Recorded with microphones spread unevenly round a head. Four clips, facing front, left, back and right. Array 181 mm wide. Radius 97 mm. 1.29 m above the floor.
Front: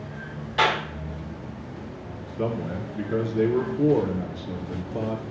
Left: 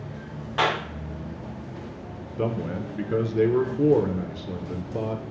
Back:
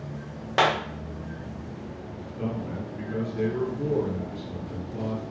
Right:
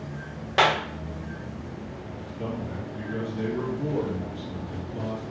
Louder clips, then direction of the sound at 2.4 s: Left 6 dB, front 4 dB; 70° left.